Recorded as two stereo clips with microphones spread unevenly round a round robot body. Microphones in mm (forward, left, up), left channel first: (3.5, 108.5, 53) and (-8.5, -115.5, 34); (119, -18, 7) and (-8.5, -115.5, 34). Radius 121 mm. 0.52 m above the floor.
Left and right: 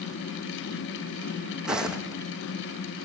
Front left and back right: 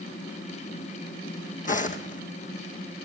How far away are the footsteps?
About 1.7 m.